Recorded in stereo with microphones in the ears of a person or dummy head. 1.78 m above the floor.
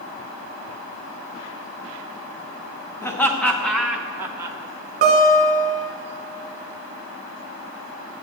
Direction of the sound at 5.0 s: 45° right (ahead or behind).